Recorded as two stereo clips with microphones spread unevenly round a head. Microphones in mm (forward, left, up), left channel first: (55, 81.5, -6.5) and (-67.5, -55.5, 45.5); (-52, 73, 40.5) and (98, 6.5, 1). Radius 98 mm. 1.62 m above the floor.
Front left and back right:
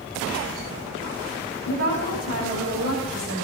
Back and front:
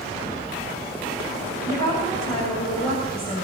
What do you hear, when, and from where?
1.6 s a woman speaking: 140° right, 9 m